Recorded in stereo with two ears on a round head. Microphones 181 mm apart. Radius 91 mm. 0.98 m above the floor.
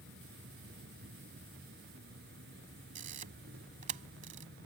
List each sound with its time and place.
0.0 s an insect: 55° right (ahead or behind)
3.0 s a camera shutter: 40° right (ahead or behind)